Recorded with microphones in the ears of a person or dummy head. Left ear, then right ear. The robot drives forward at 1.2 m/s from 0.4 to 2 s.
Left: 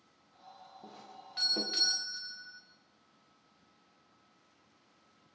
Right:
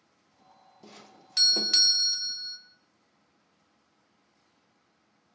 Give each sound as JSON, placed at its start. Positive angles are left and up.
{"t": 0.8, "sound": "a doorbell", "side_deg": -70, "distance_m": 2.0}